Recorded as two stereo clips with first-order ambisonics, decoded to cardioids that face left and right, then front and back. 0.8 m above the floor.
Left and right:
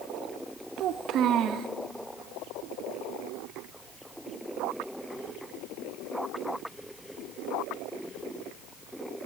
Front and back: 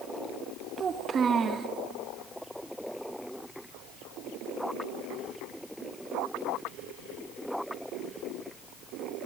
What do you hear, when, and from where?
0.8 s a child speaking: 120° right, 0.8 m